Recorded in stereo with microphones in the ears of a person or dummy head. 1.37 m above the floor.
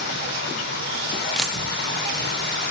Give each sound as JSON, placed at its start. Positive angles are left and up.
{"t": 0.0, "sound": "running water", "side_deg": 55, "distance_m": 8.0}
{"t": 1.4, "sound": "a dropped coin", "side_deg": -5, "distance_m": 1.2}